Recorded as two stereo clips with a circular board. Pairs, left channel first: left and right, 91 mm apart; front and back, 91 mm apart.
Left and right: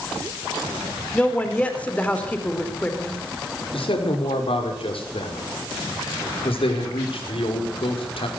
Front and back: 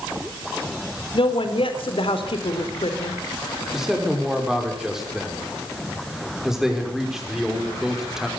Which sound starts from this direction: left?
A man speaking, at 3.7 s.